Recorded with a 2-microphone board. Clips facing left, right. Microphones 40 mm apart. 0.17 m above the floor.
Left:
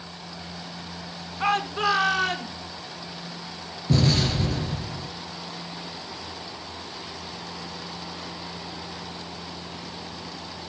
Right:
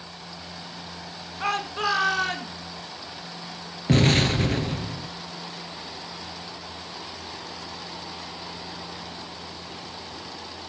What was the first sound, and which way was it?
A shout, 10° left (ahead or behind).